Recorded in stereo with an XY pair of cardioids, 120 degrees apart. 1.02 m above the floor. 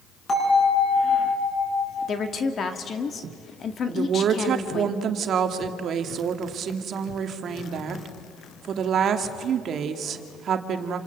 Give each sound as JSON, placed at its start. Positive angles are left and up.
{"t": 0.3, "sound": "a bell", "azimuth_deg": 30, "distance_m": 9.5}
{"t": 2.1, "sound": "a woman speaking", "azimuth_deg": 40, "distance_m": 2.0}
{"t": 3.9, "sound": "a woman speaking", "azimuth_deg": -55, "distance_m": 1.7}